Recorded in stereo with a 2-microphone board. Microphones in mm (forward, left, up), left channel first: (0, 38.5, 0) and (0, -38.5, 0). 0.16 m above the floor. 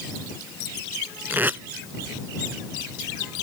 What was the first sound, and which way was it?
Tape being pulled, 25° right (ahead or behind).